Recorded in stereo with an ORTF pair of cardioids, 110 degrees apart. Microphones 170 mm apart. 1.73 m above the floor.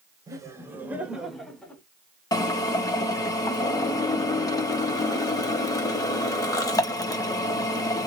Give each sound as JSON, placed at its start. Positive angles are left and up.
{"t": 0.3, "sound": "laughter", "azimuth_deg": -20, "distance_m": 1.6}
{"t": 2.3, "sound": "a drill", "azimuth_deg": 20, "distance_m": 1.0}